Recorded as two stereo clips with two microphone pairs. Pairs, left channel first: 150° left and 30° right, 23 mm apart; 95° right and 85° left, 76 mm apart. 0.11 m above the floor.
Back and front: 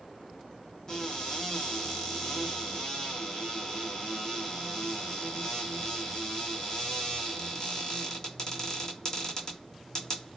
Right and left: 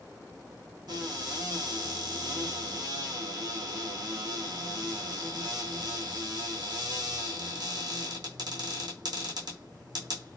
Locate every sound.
0.9 s a cupboard door: 95° left, 1.7 m